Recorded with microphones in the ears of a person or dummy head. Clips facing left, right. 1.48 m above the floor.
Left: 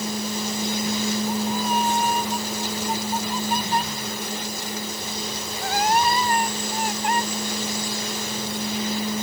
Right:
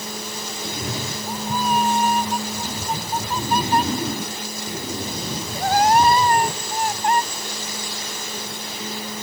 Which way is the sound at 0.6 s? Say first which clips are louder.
Left 3 dB; 55° right (ahead or behind).